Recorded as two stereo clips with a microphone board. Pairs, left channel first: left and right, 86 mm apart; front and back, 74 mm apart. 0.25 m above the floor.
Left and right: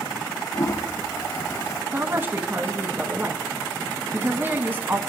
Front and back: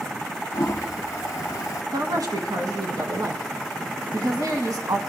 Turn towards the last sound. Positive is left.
turn(degrees=-150)